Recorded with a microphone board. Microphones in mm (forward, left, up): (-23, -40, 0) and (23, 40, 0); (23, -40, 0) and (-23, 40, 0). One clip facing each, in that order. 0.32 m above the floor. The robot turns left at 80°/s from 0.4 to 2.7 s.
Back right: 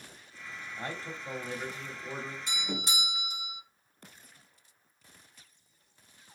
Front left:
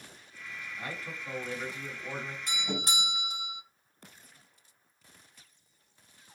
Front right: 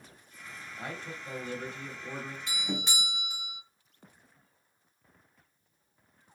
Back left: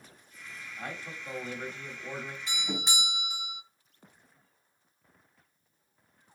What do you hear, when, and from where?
0.8 s a man speaking: 140° right, 1.5 m; by 2.4 s 90° left, 1.5 m
2.5 s a doorbell: 70° left, 3 m; by 3.6 s 50° left, 3 m